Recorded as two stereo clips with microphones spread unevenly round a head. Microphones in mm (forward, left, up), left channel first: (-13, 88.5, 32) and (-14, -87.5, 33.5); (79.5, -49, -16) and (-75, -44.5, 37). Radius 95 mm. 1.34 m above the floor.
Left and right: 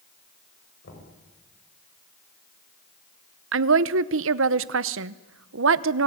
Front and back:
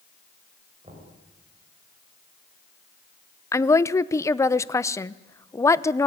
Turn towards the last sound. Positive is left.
turn(degrees=-75)